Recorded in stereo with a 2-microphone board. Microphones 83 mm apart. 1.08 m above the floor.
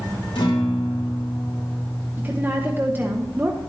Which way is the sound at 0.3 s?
70° left (ahead or behind).